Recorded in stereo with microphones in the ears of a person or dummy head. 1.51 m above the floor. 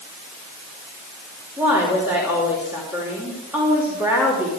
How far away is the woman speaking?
About 3.5 m.